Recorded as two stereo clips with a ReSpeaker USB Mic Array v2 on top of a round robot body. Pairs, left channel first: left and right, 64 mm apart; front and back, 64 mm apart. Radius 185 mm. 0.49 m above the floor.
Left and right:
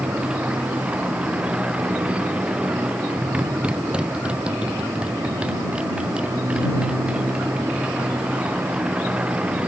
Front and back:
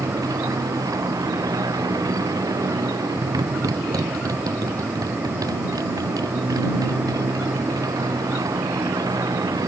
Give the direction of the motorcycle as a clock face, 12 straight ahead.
5 o'clock.